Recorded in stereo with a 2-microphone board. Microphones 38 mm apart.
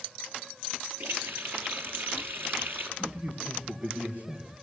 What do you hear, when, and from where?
1.0 s a running tap: 65° right (ahead or behind), 3.5 m
3.0 s a man speaking: 45° right (ahead or behind), 5 m